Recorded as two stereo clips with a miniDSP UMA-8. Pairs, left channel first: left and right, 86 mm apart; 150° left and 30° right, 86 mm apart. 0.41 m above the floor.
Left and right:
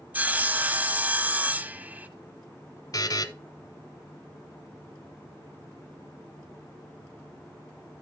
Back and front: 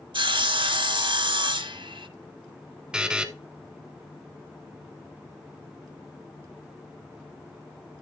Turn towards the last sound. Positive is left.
turn(degrees=50)